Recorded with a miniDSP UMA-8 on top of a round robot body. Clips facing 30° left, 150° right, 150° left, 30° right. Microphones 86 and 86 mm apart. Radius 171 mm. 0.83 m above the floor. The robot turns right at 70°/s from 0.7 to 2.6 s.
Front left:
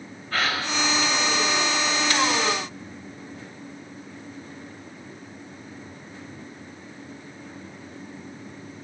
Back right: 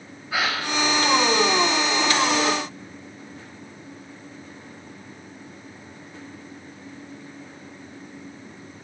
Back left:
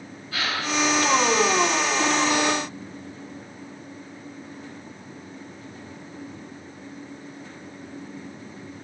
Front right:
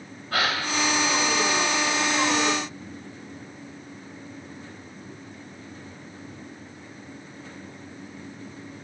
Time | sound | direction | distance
0.3 | a gasp | 70° right | 4 m